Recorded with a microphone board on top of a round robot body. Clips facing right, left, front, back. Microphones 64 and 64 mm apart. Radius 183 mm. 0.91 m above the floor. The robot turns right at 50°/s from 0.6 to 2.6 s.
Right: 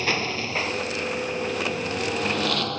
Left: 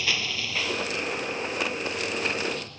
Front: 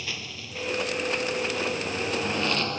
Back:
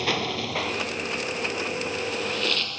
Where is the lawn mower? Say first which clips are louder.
Right 4 dB, back 11 dB; 145° right; by 2.8 s 65° right.